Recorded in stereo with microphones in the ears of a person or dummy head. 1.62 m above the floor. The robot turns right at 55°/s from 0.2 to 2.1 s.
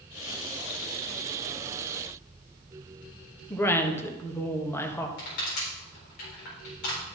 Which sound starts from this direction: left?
Crushing, at 5.2 s.